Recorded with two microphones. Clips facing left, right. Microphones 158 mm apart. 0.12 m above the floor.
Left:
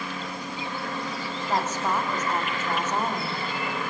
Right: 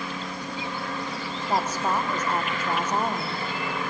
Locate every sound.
1.5 s a woman speaking: 10° right (ahead or behind), 5.5 m